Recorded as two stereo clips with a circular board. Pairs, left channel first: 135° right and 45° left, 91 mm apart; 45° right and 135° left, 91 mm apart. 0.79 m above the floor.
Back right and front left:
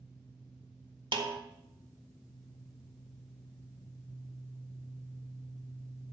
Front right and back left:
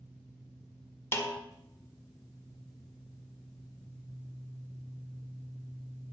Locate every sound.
1.1 s a snare drum: 15° left, 1.4 m